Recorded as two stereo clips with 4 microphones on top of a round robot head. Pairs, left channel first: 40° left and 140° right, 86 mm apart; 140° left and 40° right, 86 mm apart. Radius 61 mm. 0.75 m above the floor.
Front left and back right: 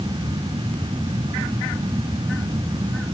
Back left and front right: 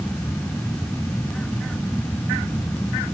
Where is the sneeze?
No sneeze in this recording.